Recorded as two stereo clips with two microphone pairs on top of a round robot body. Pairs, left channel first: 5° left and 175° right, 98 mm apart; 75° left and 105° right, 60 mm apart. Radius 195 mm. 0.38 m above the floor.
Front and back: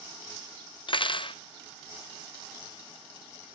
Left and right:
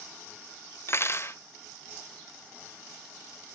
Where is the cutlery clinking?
35° left, 0.9 m.